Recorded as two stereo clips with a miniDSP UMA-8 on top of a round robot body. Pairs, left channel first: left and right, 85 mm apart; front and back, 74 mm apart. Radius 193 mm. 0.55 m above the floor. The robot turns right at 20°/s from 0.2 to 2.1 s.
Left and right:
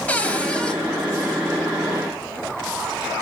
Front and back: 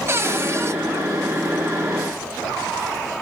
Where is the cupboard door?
155° left, 1.1 m; by 0.8 s 165° left, 1.1 m.